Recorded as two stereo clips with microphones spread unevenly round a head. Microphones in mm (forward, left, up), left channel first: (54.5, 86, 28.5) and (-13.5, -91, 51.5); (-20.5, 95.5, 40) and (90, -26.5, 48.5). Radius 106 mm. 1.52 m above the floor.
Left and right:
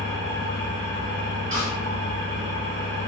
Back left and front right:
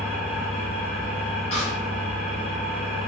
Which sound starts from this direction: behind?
A snare drum, at 1.5 s.